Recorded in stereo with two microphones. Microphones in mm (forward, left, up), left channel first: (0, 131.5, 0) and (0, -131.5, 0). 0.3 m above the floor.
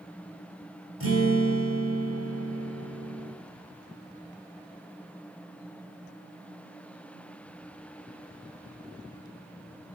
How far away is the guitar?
About 3.5 m.